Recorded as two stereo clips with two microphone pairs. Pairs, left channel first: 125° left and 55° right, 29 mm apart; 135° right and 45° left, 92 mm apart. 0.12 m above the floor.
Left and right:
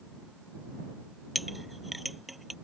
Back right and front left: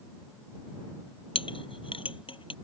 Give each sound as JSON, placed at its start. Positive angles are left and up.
{"t": 1.4, "sound": "a clink", "azimuth_deg": -145}